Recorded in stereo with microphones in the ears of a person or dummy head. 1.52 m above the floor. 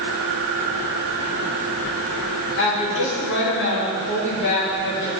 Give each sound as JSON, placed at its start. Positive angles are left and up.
{"t": 2.6, "sound": "a woman speaking", "side_deg": 60, "distance_m": 2.0}